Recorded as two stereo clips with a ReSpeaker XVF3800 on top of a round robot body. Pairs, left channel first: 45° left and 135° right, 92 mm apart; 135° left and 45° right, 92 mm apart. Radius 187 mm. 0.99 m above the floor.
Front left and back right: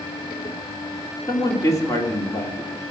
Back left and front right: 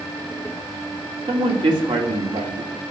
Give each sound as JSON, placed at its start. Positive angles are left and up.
{"t": 1.3, "sound": "a man speaking", "azimuth_deg": -10, "distance_m": 3.0}